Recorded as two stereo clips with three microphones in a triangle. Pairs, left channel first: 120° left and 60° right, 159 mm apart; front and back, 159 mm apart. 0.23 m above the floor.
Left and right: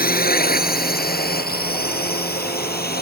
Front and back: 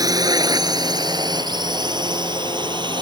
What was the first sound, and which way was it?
A drone, 115° left.